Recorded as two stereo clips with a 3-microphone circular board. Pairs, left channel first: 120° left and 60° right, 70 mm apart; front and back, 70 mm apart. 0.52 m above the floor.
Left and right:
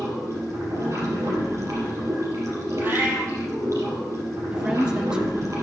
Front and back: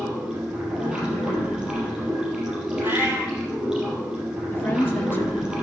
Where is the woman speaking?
5° left, 1.1 m.